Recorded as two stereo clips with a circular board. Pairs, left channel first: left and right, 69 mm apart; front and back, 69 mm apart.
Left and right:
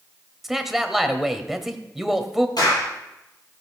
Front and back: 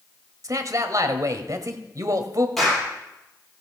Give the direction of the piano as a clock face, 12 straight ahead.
I don't hear a piano.